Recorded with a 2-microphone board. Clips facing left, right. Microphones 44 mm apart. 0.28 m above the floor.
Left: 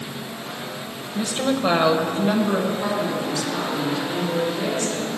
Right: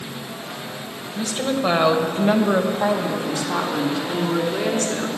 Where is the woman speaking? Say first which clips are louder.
Left 1 dB; 20° left (ahead or behind), 1.1 m; by 5.1 s 70° right (ahead or behind), 3 m.